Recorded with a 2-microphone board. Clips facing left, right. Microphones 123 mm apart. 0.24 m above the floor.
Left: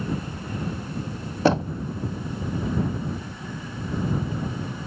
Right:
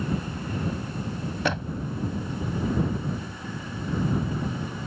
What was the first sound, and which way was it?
Knocking, 35° left (ahead or behind).